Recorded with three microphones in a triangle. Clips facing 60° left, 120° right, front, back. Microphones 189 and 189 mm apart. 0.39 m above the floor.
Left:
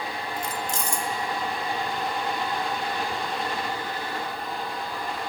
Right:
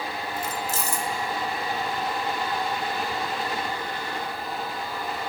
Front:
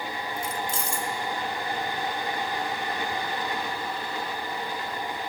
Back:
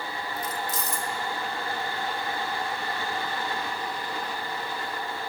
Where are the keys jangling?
40° right, 0.6 m.